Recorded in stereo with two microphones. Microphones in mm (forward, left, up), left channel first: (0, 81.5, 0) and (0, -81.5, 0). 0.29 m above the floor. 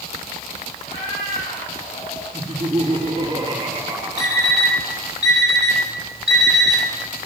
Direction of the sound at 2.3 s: 25° right (ahead or behind).